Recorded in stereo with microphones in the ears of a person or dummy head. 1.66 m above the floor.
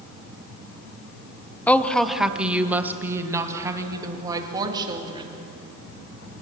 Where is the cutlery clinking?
No cutlery clinking in this recording.